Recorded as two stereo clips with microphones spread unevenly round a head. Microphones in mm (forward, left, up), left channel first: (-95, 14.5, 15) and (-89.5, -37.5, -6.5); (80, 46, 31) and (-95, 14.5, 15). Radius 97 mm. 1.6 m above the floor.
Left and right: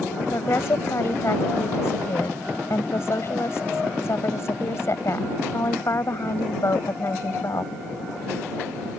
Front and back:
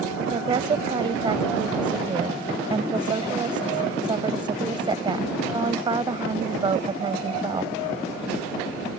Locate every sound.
0.2 s a woman speaking: 125° left